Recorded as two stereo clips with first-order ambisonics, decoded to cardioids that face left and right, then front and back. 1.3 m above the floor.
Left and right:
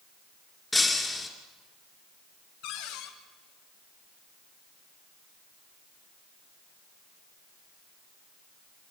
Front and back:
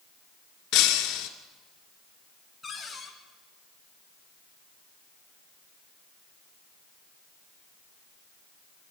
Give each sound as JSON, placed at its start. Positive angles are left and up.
{"t": 0.7, "sound": "breaking glass", "azimuth_deg": 15, "distance_m": 2.0}
{"t": 2.6, "sound": "a cupboard door", "azimuth_deg": 80, "distance_m": 2.0}